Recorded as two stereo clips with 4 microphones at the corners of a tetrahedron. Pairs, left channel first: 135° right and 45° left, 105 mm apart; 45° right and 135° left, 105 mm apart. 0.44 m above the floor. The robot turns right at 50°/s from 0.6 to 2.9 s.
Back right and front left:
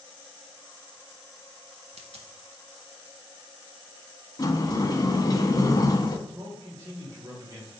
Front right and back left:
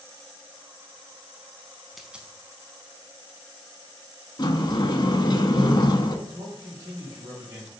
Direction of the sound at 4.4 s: 90° right.